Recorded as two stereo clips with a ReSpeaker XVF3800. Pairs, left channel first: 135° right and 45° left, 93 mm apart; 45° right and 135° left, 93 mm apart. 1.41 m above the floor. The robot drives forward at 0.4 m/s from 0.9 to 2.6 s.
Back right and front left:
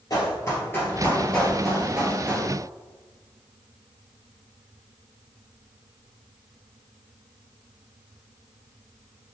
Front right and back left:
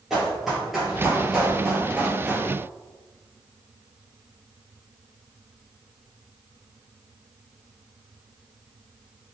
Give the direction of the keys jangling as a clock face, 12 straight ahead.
No keys jangling in this recording.